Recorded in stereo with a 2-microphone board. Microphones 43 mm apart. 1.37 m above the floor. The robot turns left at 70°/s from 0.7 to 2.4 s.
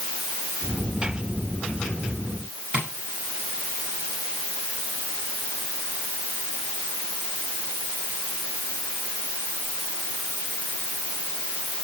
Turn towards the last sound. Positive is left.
turn(degrees=-35)  # may be behind; listen again after turning